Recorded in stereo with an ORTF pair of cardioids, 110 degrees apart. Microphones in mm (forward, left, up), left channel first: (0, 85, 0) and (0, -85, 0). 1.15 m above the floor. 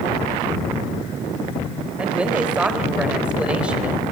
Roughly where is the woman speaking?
Ahead.